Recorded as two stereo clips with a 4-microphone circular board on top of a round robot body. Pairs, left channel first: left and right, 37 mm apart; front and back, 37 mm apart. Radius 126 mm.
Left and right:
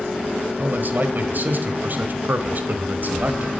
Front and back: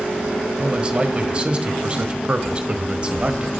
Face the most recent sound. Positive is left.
turn(degrees=-115)